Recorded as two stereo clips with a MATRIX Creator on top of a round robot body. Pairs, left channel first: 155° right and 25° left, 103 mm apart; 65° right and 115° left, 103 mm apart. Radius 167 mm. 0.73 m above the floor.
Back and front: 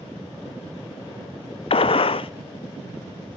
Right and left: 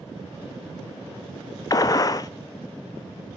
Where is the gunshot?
125° right, 0.6 m.